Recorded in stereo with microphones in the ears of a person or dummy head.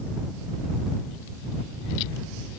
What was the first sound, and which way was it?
Only background noise.